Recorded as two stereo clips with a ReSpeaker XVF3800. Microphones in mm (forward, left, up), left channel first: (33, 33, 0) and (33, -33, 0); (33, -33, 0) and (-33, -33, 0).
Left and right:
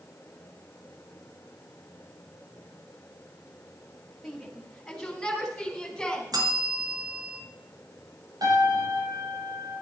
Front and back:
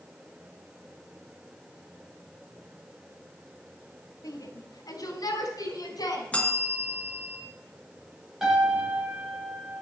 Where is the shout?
Straight ahead, 3.5 m; by 6.3 s 10° left, 6 m.